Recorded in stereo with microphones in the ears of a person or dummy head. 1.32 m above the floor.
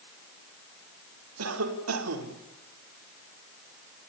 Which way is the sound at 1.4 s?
85° right.